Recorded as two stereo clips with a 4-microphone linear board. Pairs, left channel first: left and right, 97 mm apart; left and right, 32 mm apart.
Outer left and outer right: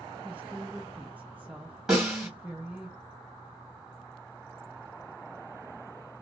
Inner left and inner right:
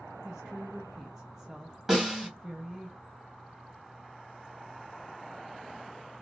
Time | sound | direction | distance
0.2 | a woman speaking | 15° right (ahead or behind) | 0.5 m
1.9 | a snare drum | 5° right (ahead or behind) | 2.5 m